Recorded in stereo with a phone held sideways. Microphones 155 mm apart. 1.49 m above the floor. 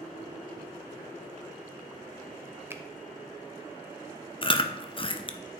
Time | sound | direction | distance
2.7 | a finger snap | 15° right (ahead or behind) | 0.8 m
4.4 | chewing | 35° left (ahead or behind) | 0.6 m